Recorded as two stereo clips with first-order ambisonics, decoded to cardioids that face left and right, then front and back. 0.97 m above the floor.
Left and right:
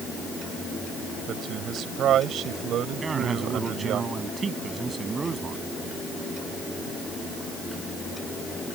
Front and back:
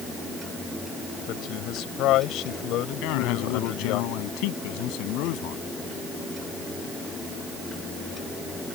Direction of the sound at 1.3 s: 40° right.